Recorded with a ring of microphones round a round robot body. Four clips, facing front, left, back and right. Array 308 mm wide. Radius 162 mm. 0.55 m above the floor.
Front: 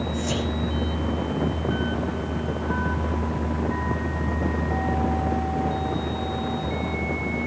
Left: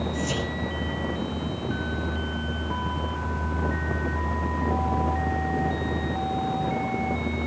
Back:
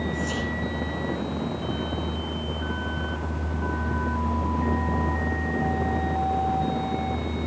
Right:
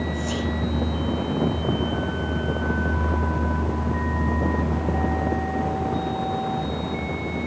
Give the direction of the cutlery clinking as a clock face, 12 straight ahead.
No cutlery clinking in this recording.